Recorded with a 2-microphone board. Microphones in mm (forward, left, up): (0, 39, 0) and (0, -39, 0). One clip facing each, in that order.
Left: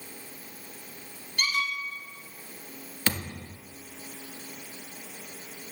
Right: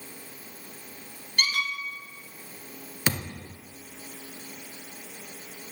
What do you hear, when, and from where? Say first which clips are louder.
1.4 s a squeak: even; 75° right (ahead or behind), 0.7 m
3.1 s a thud: right 1 dB; 15° right (ahead or behind), 1.0 m